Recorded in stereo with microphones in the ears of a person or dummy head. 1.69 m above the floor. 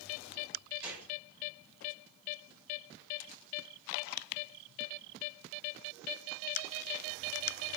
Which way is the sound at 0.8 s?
5° right (ahead or behind).